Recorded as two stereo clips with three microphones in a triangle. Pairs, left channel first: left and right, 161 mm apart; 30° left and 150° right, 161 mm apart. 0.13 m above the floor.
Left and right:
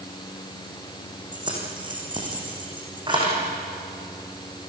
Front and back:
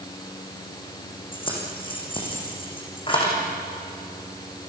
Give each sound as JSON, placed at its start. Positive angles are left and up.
{"t": 1.3, "sound": "keys jangling", "azimuth_deg": -30, "distance_m": 5.5}